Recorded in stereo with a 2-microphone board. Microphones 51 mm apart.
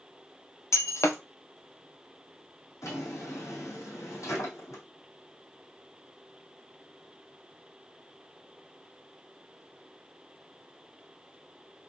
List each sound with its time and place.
0.7 s breaking glass: 65° left (ahead or behind), 0.8 m
2.8 s a drawer: 75° left (ahead or behind), 2.5 m